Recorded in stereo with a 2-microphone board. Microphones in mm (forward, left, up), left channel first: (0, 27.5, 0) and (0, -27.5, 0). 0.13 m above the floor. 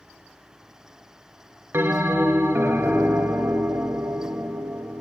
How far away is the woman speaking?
I don't hear a woman speaking.